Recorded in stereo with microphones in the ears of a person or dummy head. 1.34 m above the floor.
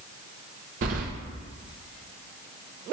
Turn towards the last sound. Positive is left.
turn(degrees=-45)  # may be behind; listen again after turning